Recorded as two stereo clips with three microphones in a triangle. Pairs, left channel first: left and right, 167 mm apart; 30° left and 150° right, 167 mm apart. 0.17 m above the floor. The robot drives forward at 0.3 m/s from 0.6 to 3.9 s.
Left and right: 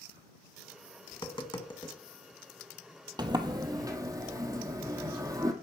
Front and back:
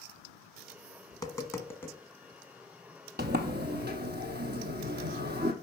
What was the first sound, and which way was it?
Tapping, 70° left.